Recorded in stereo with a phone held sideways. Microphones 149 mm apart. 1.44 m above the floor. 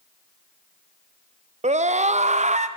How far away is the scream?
About 0.5 m.